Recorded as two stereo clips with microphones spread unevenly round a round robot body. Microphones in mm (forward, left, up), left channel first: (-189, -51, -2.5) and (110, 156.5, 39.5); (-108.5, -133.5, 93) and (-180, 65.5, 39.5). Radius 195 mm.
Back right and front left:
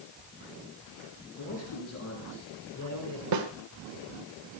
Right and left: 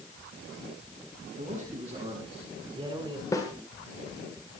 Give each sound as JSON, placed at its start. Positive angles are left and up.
{"t": 1.4, "sound": "a man speaking", "azimuth_deg": 160, "distance_m": 6.5}
{"t": 3.3, "sound": "a snare drum", "azimuth_deg": 15, "distance_m": 1.8}